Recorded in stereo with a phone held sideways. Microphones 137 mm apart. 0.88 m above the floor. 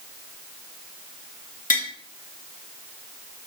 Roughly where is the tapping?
Left.